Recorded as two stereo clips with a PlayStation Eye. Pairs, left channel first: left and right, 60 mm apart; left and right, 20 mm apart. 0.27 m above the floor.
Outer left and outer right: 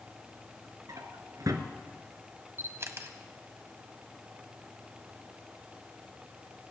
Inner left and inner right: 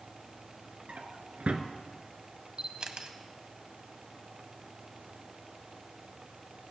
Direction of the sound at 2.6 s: 45° right (ahead or behind).